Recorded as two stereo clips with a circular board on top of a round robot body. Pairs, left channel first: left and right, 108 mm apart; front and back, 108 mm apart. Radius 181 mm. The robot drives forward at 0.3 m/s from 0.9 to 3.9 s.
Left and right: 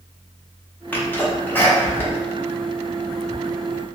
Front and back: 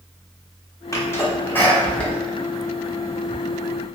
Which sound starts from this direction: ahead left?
A sneeze, at 0.9 s.